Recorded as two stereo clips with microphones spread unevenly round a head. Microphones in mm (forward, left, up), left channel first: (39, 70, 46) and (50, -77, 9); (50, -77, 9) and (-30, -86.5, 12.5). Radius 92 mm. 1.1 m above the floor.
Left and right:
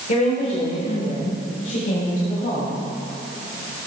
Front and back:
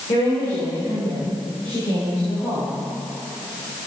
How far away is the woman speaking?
About 3.5 m.